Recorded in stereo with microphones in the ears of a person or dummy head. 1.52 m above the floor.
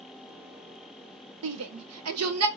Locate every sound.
1.4 s a shout: 75° right (ahead or behind), 0.8 m; by 2.5 s 80° right, 1.2 m